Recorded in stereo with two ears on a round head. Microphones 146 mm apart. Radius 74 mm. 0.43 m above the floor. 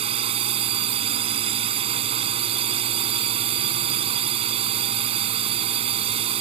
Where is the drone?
35° right (ahead or behind).